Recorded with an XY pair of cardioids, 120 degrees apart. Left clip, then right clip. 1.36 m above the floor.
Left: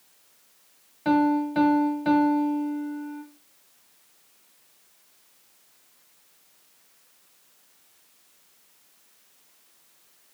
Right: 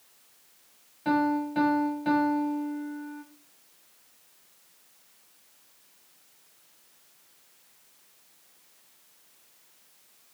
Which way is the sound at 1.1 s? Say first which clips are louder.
Left 4 dB; 30° left.